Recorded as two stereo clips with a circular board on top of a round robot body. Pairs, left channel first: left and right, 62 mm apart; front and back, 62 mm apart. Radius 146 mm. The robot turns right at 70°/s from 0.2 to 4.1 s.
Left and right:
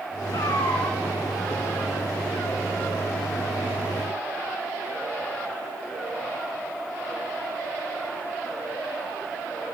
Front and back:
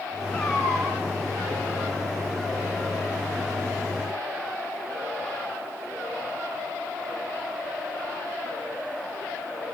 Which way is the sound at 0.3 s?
70° left.